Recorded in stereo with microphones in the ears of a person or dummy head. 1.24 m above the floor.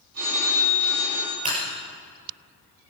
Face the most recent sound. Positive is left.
turn(degrees=-45)  # may be behind; listen again after turning